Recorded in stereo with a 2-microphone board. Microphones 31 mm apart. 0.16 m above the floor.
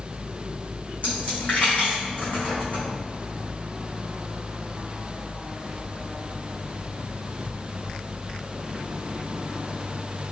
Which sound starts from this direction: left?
A dropped coin, at 1.0 s.